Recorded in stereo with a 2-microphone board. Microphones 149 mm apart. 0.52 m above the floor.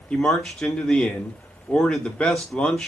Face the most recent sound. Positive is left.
turn(degrees=5)  # may be behind; listen again after turning